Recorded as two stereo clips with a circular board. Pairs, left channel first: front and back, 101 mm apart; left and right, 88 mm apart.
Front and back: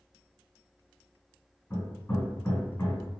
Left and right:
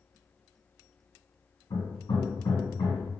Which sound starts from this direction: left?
Hammering, at 1.7 s.